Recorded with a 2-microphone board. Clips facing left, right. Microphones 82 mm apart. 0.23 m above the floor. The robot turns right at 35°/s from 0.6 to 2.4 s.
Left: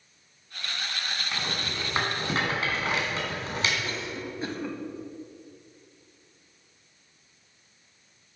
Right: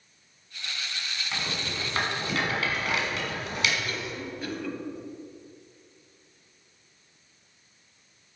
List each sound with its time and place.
1.3 s a rattle: centre (ahead or behind), 1.9 m; by 3.7 s 30° left (ahead or behind), 1.9 m
3.8 s a cough: 25° left (ahead or behind), 1.0 m